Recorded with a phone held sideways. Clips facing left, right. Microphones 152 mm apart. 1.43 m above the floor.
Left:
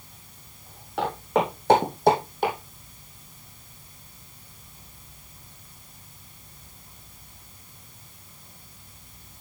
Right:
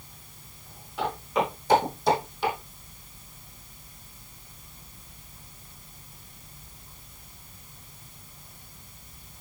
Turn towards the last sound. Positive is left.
turn(degrees=50)  # may be behind; listen again after turning